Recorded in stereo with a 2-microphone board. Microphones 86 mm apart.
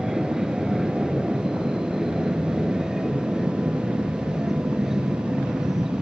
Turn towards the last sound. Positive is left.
turn(degrees=-5)  # may be behind; listen again after turning